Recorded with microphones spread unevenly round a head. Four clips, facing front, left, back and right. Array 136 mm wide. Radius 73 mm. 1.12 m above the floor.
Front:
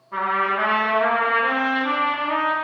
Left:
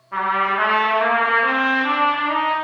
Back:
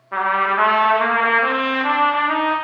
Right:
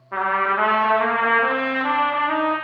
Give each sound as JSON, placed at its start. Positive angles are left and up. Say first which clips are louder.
{"t": 0.1, "sound": "a trumpet", "louder": "left 1 dB, back 4 dB", "azimuth_deg": 180, "distance_m": 0.8}